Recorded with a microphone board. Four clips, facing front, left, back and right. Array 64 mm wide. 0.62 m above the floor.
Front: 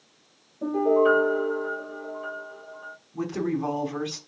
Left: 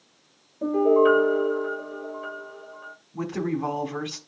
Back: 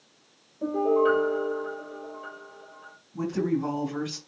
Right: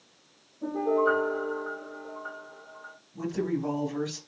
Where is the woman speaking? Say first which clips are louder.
Left 2 dB, back 1 dB; 70° left, 4 m.